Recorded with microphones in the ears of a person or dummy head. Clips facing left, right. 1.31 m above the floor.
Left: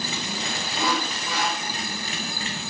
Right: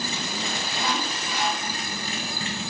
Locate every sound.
0.8 s sawing: 80° left, 4.5 m